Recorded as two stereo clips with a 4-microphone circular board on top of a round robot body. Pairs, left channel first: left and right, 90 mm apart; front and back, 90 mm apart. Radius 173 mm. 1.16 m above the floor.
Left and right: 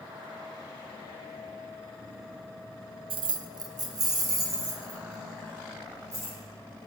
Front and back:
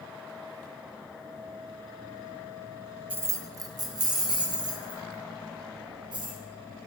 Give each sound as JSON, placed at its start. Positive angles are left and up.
{"t": 3.1, "sound": "keys jangling", "azimuth_deg": -110, "distance_m": 0.5}